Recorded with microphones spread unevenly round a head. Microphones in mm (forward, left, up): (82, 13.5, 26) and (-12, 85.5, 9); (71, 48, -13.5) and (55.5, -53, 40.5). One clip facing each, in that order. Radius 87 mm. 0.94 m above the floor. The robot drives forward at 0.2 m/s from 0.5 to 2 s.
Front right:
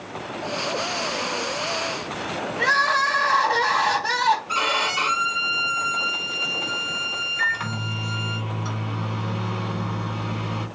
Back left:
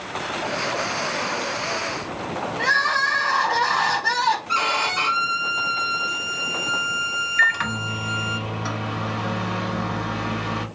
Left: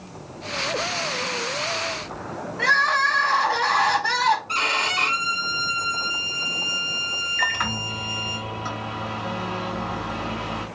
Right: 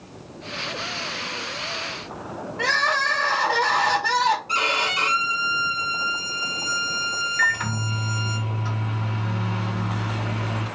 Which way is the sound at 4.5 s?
120° right.